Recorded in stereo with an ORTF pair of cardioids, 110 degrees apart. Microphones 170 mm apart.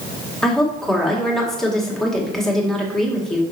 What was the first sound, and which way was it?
A woman speaking, 5° left.